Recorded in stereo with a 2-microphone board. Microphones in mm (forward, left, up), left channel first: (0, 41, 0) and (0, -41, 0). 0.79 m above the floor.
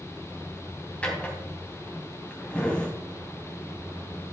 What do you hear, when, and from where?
1.0 s a drawer: 15° left (ahead or behind), 3 m